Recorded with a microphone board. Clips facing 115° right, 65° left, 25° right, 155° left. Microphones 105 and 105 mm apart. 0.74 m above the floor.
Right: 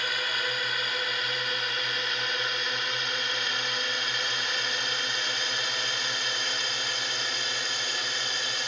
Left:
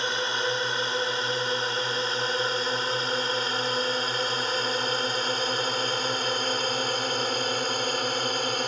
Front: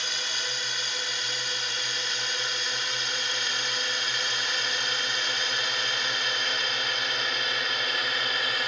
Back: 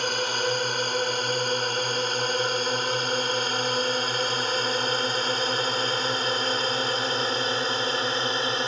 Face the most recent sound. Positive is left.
turn(degrees=100)